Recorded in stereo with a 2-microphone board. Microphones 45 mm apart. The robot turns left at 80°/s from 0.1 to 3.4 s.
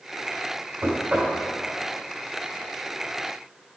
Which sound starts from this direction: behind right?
Knocking, at 0.8 s.